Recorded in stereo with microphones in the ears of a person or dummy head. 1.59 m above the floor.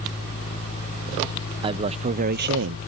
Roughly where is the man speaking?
Right.